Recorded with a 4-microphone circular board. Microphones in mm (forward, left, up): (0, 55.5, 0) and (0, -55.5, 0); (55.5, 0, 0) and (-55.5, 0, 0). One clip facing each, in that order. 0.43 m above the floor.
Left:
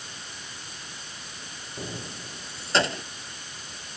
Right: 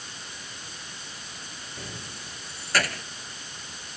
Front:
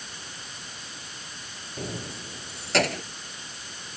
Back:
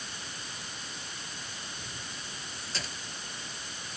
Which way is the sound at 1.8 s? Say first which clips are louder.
Left 6 dB, front 9 dB; 25° left.